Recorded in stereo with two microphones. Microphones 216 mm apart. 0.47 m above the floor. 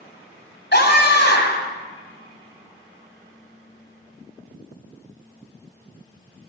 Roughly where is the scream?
Left.